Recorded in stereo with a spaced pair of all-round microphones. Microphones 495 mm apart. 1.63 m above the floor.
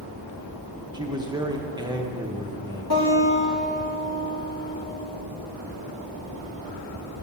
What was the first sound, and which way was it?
A man speaking, 10° right (ahead or behind).